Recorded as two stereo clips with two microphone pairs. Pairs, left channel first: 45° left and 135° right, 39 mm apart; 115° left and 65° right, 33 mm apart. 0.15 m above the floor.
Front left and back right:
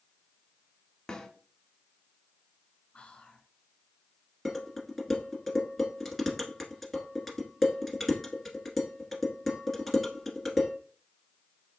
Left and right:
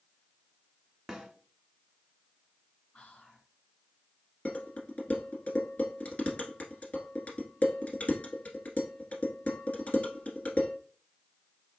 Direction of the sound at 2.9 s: 90° left.